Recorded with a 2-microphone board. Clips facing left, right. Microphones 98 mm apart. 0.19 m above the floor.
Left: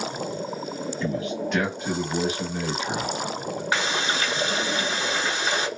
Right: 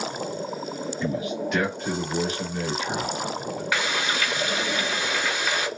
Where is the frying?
30° left (ahead or behind), 0.6 m.